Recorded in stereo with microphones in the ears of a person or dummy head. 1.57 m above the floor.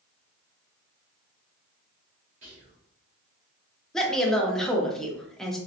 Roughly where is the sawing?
No sawing in this recording.